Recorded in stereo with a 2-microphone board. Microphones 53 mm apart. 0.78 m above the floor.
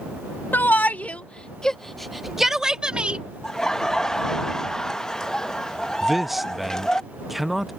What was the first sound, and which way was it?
A shout, 40° left (ahead or behind).